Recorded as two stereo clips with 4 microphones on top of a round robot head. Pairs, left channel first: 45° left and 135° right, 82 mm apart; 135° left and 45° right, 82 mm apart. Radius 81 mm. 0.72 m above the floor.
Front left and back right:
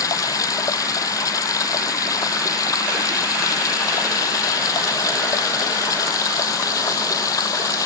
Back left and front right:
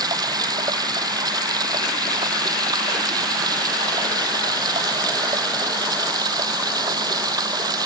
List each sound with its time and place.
0.0 s running water: 5° right